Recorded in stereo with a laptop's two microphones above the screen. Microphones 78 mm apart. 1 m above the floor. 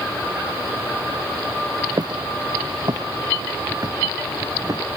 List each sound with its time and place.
2.0 s footsteps: 60° right (ahead or behind); by 4.8 s 50° right (ahead or behind)